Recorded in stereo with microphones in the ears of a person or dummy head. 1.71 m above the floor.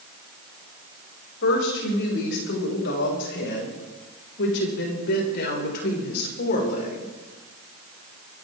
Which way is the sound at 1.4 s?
75° left (ahead or behind).